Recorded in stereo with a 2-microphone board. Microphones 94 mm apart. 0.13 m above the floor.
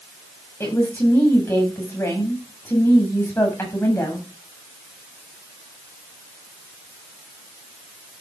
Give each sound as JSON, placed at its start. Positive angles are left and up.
{"t": 0.6, "sound": "a woman speaking", "side_deg": 30, "distance_m": 8.5}